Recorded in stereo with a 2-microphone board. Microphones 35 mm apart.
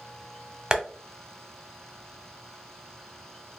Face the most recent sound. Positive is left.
turn(degrees=-25)  # may be behind; listen again after turning